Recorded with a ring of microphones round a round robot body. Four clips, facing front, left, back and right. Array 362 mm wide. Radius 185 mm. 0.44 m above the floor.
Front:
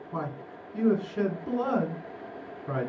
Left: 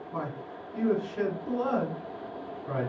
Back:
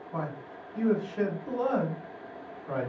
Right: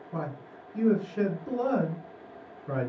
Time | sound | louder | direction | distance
0.1 | a man speaking | even, front 1 dB | 5° right | 1.6 m